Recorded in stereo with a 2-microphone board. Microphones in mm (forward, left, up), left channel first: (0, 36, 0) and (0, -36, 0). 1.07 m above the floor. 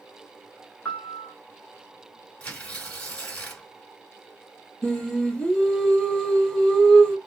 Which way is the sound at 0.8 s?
25° left (ahead or behind).